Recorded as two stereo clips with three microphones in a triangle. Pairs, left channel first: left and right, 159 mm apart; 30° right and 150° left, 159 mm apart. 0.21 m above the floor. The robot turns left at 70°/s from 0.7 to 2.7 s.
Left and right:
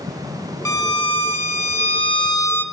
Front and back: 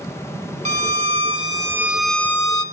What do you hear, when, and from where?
0.7 s a violin: 155° left, 1.3 m; by 2.6 s 20° left, 1.3 m